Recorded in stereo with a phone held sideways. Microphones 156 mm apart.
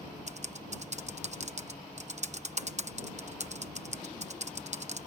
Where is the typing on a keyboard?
45° right (ahead or behind).